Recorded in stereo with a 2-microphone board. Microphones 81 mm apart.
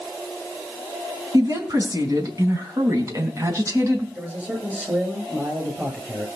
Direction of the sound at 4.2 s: 15° right (ahead or behind).